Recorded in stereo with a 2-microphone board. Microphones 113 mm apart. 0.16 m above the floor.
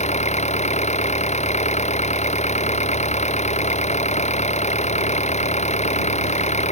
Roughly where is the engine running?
Left.